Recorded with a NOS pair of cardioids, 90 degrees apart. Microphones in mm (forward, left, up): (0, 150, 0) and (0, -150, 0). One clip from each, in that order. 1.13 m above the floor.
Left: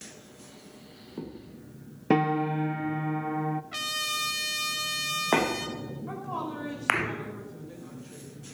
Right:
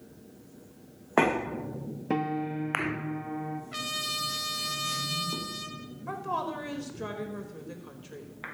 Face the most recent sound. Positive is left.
turn(degrees=-45)